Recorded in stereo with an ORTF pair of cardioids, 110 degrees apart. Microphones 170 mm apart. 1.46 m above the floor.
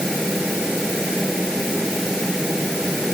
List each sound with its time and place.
0.0 s a fan: straight ahead